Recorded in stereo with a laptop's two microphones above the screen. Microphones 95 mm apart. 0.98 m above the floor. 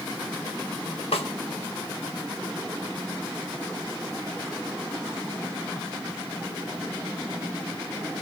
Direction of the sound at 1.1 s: 80° left.